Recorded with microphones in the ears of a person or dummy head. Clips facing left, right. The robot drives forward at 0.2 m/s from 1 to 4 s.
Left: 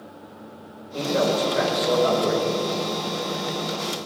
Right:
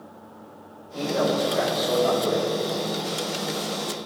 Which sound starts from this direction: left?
A man speaking, at 0.9 s.